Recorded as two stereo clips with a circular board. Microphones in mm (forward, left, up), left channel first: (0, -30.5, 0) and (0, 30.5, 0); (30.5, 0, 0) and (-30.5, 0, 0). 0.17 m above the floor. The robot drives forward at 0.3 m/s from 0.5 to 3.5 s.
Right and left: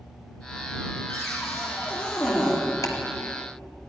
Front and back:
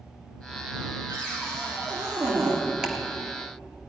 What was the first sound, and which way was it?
A cupboard door, 155° right.